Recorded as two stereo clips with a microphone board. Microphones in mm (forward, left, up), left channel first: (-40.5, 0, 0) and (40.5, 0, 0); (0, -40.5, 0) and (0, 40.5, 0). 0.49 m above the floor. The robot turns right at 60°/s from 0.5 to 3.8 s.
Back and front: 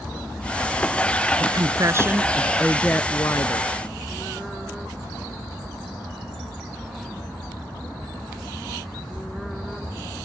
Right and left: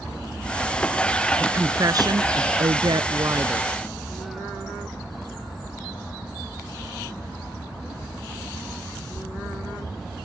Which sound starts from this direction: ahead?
A woman speaking, at 1.4 s.